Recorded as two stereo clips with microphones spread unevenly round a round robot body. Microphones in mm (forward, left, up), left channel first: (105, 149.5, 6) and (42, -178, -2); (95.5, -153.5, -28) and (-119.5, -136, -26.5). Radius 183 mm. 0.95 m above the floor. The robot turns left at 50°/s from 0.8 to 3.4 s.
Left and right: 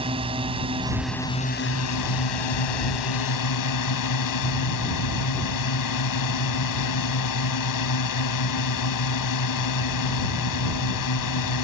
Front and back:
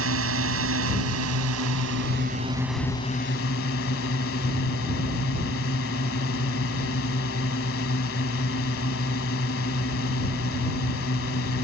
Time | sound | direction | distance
0.0 | a drone | 175° right | ?